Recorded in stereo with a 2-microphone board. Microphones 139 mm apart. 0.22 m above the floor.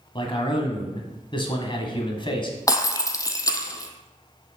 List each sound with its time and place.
0.1 s a man speaking: 35° left (ahead or behind), 1.6 m
2.7 s breaking glass: 25° left (ahead or behind), 0.8 m